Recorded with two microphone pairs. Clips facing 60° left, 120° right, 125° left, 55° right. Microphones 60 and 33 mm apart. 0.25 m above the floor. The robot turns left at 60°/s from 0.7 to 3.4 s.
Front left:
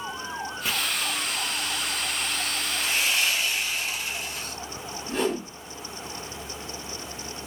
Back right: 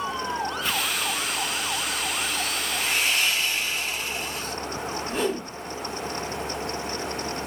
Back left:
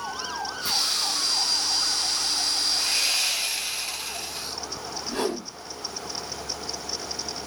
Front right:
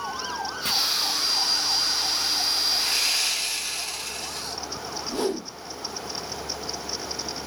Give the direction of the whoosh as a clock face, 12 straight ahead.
7 o'clock.